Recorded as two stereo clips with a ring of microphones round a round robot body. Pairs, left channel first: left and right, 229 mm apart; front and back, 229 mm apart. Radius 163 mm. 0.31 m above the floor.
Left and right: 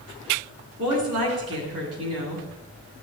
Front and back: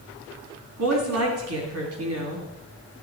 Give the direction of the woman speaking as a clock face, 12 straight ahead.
5 o'clock.